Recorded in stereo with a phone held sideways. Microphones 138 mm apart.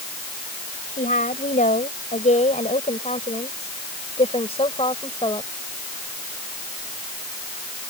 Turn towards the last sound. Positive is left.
turn(degrees=35)  # may be behind; listen again after turning